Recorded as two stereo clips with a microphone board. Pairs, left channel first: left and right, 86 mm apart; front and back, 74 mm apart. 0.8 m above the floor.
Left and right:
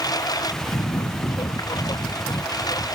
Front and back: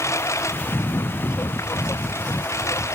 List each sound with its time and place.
0.0 s a lawn mower: 50° left